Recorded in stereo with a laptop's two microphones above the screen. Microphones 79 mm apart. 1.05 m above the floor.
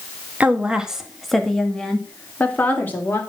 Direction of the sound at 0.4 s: 20° right (ahead or behind).